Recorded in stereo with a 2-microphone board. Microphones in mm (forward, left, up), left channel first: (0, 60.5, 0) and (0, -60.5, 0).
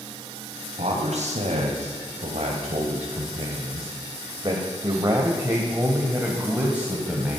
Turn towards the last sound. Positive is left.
turn(degrees=-5)  # may be behind; listen again after turning